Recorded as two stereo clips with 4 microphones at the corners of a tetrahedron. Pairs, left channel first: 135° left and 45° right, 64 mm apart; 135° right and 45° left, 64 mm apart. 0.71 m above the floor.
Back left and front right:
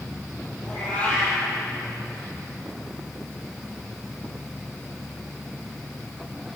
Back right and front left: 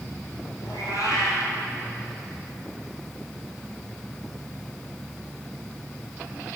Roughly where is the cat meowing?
Behind right.